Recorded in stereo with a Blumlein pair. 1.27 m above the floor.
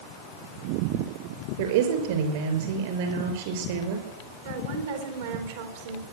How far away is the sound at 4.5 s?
About 3.5 m.